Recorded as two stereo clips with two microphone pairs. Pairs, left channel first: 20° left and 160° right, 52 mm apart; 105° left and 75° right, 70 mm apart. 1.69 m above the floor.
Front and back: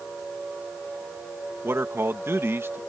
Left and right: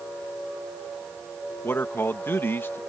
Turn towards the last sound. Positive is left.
turn(degrees=160)